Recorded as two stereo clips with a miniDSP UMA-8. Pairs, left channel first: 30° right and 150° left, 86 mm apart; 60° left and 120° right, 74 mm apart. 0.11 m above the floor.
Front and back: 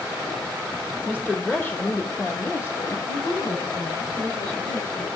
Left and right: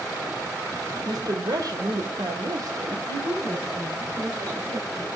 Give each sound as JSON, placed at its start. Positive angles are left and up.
{"t": 1.1, "sound": "a woman speaking", "azimuth_deg": -105, "distance_m": 3.0}
{"t": 3.1, "sound": "a woman speaking", "azimuth_deg": 0, "distance_m": 7.0}